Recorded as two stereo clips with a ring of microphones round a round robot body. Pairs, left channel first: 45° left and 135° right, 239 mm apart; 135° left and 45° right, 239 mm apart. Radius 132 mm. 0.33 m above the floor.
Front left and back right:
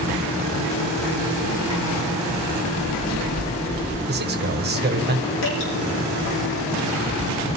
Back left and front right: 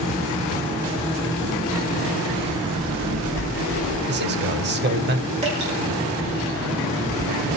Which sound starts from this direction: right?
A man speaking, at 4.1 s.